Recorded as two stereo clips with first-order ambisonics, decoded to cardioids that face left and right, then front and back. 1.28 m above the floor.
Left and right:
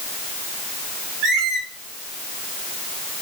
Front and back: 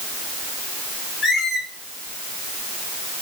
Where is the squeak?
60° right, 0.8 m.